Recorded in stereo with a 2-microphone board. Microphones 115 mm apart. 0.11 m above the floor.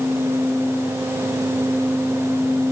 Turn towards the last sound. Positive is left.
No sound to turn to.